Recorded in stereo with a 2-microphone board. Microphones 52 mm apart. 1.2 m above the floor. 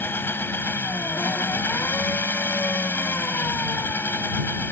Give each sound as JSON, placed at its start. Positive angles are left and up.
{"t": 0.0, "sound": "an engine running", "side_deg": 45}